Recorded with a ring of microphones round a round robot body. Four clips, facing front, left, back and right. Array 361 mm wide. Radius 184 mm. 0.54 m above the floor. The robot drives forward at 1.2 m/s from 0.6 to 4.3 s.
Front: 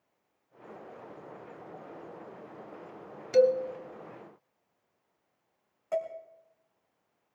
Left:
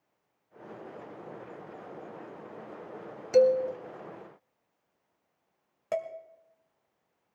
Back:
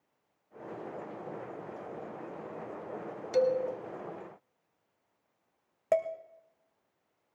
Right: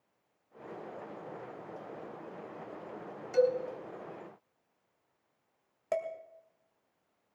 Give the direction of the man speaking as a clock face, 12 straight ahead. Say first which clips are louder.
Left 6 dB, front 4 dB; 9 o'clock.